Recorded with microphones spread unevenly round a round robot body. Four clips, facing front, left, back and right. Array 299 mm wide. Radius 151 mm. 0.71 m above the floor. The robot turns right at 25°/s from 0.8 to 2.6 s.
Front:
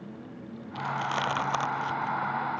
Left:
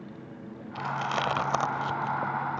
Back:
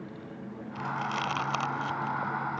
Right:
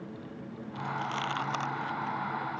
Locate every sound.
0.8 s chewing: 60° left; by 2.6 s 105° left